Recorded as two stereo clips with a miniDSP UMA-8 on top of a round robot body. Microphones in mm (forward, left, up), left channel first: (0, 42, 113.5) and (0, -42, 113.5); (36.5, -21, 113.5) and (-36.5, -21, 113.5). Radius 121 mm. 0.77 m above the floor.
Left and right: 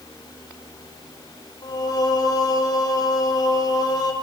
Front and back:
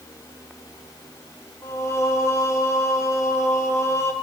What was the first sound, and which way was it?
Singing, 50° left.